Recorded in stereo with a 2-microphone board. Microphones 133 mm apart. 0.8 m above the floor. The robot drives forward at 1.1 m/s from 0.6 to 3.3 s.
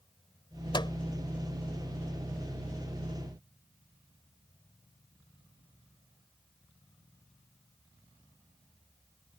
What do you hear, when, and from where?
0.7 s a microwave: 35° left (ahead or behind)